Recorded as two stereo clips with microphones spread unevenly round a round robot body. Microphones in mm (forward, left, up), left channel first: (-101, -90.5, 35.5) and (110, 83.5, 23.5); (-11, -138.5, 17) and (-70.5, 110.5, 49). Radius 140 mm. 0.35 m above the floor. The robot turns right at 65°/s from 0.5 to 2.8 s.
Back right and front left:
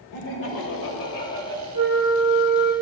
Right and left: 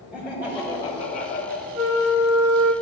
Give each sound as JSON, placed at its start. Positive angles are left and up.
{"t": 0.1, "sound": "laughter", "azimuth_deg": -165, "distance_m": 1.3}
{"t": 1.7, "sound": "a flute", "azimuth_deg": 160, "distance_m": 1.2}